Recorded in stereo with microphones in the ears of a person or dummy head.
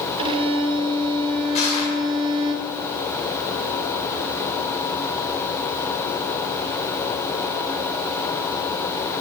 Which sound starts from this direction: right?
A violin, at 0.2 s.